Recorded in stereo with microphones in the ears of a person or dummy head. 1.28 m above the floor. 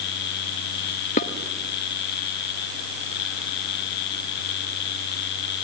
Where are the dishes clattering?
40° left (ahead or behind), 0.9 m.